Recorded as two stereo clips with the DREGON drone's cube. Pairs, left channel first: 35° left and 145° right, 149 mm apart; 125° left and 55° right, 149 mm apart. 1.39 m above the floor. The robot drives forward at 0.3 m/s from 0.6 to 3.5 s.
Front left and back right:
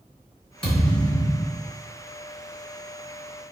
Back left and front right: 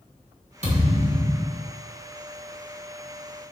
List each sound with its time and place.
0.6 s a thud: 45° right, 1.6 m; by 1.7 s 55° right, 1.5 m